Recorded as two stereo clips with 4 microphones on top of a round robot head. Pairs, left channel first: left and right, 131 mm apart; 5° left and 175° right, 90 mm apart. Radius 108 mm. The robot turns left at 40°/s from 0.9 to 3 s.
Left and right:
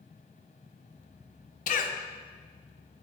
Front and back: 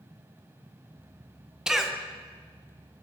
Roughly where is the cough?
Left.